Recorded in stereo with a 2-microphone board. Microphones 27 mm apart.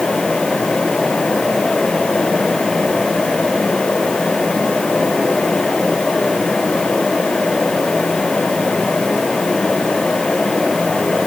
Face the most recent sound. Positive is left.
No sound to turn to.